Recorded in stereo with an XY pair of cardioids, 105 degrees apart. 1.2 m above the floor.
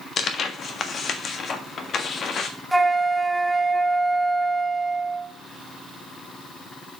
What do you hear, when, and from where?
0.2 s tearing paper: 55° left, 1.4 m
2.7 s a flute: 5° right, 1.1 m